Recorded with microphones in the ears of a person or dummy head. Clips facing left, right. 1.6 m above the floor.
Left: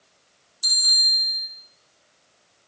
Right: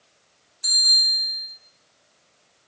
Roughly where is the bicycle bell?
Left.